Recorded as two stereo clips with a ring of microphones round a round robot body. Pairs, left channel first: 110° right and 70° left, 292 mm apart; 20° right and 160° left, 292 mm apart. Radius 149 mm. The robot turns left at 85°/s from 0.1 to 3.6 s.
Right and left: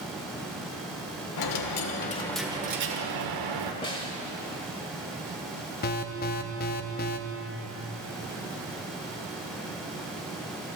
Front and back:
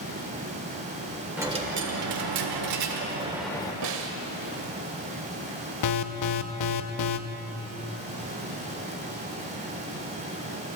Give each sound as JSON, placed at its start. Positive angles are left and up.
{"t": 1.4, "sound": "a dropped coin", "azimuth_deg": -115, "distance_m": 1.3}
{"t": 3.8, "sound": "a snare drum", "azimuth_deg": 175, "distance_m": 1.3}
{"t": 5.8, "sound": "an alarm", "azimuth_deg": -55, "distance_m": 0.6}